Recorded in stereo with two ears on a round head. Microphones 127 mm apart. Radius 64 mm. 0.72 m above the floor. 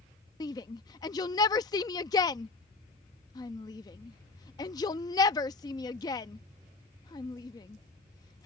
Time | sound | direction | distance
0.4 | a shout | 25° left (ahead or behind) | ?